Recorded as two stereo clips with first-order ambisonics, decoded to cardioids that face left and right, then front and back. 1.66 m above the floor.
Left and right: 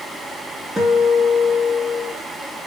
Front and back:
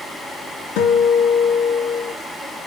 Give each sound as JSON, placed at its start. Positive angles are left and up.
{"t": 0.8, "sound": "a guitar", "azimuth_deg": -10, "distance_m": 3.0}